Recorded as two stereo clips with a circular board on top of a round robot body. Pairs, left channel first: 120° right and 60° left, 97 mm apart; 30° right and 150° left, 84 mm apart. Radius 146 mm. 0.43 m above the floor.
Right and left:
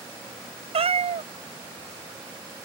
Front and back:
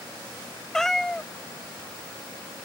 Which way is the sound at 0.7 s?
55° left.